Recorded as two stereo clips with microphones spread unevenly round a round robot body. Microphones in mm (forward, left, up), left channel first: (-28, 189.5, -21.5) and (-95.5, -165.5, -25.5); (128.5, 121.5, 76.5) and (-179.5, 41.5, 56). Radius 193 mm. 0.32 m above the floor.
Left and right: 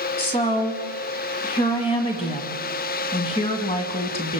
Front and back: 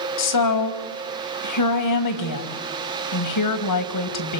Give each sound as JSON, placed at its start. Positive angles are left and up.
{"t": 0.2, "sound": "a woman speaking", "azimuth_deg": 5, "distance_m": 2.0}